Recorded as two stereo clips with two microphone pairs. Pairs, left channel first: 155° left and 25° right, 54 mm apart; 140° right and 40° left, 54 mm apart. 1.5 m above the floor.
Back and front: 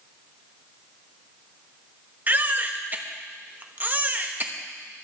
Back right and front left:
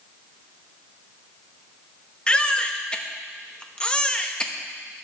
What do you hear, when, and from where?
2.3 s a baby crying: 75° right, 1.1 m